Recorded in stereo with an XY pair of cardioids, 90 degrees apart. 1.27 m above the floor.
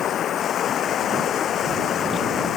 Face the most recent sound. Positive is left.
turn(degrees=70)